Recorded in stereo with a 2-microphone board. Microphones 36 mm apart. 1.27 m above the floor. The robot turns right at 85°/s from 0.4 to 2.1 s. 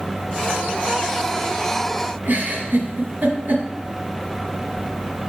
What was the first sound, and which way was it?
A giggle, 65° right (ahead or behind).